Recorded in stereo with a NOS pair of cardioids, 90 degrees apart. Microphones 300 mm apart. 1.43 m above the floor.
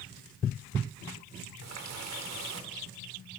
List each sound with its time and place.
1.6 s a running tap: 60° right, 4 m